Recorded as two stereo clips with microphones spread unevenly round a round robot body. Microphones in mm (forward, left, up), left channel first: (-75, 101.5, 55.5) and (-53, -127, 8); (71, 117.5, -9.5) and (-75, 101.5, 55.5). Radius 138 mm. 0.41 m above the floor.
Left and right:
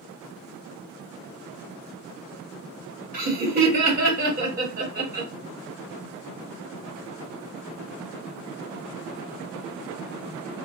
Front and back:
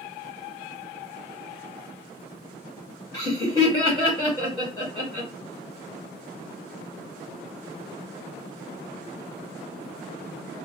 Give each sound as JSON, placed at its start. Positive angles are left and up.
{"t": 3.1, "sound": "laughter", "azimuth_deg": -40, "distance_m": 2.0}